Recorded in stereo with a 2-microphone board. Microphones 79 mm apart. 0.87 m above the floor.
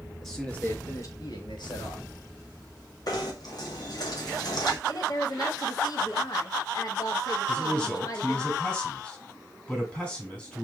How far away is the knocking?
About 1.6 m.